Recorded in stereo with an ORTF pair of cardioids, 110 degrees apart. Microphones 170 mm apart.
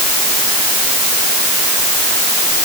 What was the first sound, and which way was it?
Only background noise.